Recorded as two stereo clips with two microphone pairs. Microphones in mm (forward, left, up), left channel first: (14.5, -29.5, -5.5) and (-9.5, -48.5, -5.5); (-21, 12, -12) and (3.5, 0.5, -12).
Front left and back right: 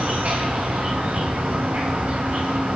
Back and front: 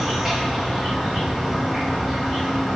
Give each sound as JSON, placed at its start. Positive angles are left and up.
{"t": 0.0, "sound": "an insect", "azimuth_deg": -120, "distance_m": 1.4}